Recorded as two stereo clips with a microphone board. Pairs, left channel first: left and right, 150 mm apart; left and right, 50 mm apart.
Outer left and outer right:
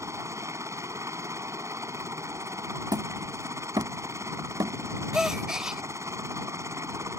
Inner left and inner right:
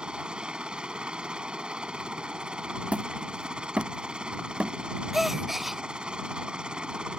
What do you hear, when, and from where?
0.0 s a helicopter: 20° right (ahead or behind)
2.9 s hammering: 30° right (ahead or behind)
5.1 s a gasp: 5° right (ahead or behind)